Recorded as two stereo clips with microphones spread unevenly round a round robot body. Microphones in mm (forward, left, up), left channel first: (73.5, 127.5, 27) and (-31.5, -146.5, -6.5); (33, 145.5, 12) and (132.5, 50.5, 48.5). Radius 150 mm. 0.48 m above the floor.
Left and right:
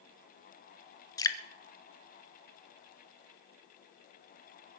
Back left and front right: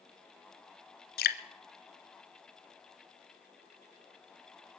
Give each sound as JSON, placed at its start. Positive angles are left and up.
{"t": 1.2, "sound": "dripping", "azimuth_deg": 145, "distance_m": 0.9}